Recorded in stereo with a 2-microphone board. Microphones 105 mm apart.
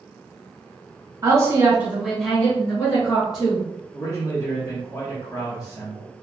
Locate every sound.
1.2 s a woman speaking: 35° right (ahead or behind), 1.3 m; by 3.7 s 45° left (ahead or behind), 1.6 m
3.9 s a man speaking: 35° left (ahead or behind), 1.3 m